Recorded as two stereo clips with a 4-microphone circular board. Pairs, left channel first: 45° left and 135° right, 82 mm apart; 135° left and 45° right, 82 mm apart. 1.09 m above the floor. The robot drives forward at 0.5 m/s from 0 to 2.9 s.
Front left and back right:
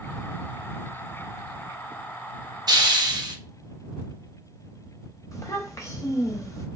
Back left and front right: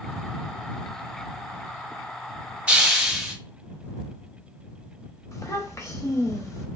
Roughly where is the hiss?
Behind right.